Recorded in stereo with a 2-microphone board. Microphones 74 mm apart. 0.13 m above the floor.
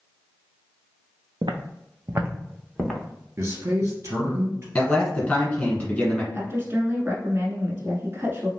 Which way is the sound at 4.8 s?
15° left (ahead or behind).